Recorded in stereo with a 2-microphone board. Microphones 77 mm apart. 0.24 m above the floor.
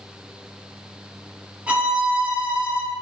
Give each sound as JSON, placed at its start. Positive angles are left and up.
{"t": 1.7, "sound": "a violin", "side_deg": -20, "distance_m": 1.1}